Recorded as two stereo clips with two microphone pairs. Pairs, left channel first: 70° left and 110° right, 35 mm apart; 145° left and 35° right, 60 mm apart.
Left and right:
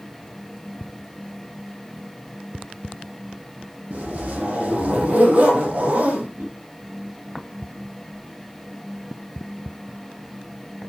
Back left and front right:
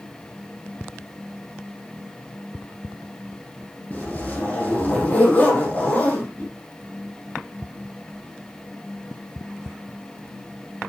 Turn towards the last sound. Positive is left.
turn(degrees=-155)